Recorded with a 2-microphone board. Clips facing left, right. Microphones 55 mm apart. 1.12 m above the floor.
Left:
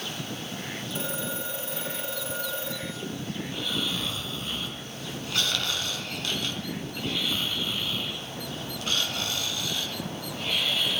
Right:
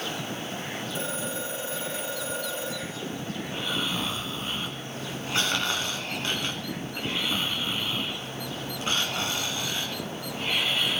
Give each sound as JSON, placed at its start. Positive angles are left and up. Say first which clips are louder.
{"t": 0.9, "sound": "a phone ringing", "louder": "even", "side_deg": 0, "distance_m": 10.0}
{"t": 3.5, "sound": "snoring", "louder": "right 2 dB", "side_deg": -25, "distance_m": 2.5}